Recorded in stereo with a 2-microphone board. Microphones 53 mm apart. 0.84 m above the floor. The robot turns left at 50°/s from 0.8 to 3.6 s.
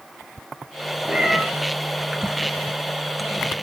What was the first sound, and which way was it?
A cat meowing, 15° right (ahead or behind).